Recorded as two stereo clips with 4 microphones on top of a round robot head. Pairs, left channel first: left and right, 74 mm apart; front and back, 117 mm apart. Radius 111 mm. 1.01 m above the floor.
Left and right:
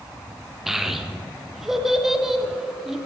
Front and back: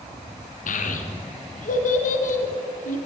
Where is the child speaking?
5° right, 0.8 m.